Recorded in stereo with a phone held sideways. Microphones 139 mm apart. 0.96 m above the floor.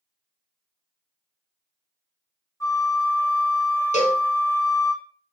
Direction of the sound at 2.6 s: 20° left (ahead or behind).